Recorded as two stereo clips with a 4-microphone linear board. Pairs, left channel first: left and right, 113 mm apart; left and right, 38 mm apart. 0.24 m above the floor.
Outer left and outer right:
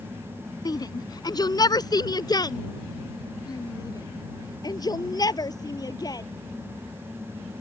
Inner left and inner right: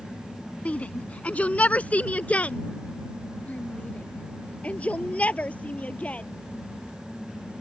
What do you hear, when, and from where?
0.7 s a shout: 35° left (ahead or behind)